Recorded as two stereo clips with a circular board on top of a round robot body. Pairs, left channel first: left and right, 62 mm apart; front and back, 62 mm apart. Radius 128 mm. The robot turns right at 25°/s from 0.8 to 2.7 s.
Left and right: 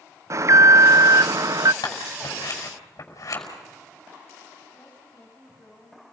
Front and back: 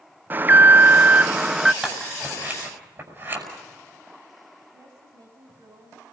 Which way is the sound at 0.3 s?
125° right.